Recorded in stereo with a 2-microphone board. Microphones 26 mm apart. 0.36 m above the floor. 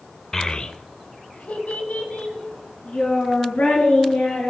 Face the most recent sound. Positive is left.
turn(degrees=85)